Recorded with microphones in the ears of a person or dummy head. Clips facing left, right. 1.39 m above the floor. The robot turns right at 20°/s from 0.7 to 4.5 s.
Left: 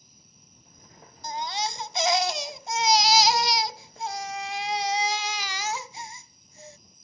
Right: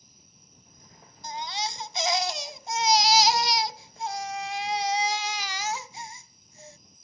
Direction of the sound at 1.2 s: 40° left.